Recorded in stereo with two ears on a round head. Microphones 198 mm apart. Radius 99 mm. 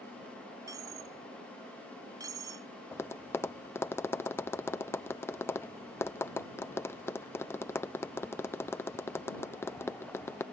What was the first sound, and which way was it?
A dropped coin, 15° right (ahead or behind).